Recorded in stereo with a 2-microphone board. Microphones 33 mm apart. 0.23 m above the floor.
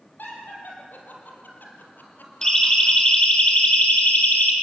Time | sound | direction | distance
0.2 | laughter | 75° left (ahead or behind) | 6 m
2.4 | a siren | 15° left (ahead or behind) | 4 m